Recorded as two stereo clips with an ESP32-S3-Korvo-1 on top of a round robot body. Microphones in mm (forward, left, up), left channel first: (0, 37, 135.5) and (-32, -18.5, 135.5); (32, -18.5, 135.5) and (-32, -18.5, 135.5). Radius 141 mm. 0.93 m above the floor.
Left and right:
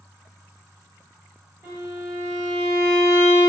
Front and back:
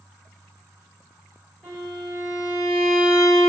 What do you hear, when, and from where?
1.6 s a violin: 85° right, 1.2 m